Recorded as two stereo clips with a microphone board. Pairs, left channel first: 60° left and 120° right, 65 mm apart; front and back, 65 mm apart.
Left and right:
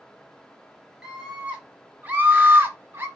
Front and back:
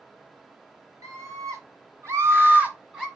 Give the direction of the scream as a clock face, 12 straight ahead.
7 o'clock.